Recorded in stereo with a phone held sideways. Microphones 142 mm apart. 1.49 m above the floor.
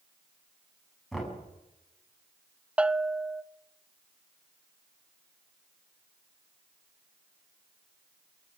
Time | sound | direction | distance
1.1 | knocking | centre (ahead or behind) | 7 m
2.8 | a bell | 10° right (ahead or behind) | 0.5 m